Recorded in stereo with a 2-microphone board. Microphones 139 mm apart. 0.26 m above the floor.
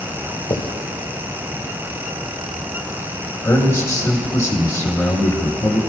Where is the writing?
35° left (ahead or behind), 2.5 m.